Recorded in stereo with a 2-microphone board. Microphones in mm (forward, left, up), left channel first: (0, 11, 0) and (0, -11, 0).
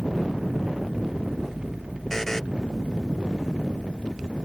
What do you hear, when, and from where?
2.1 s a buzzer: 15° left (ahead or behind)